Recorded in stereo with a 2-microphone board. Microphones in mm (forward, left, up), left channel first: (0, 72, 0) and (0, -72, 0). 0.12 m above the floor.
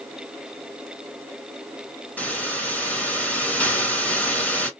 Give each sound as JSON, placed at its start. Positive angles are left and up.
{"t": 2.2, "sound": "a hiss", "side_deg": 10, "distance_m": 1.4}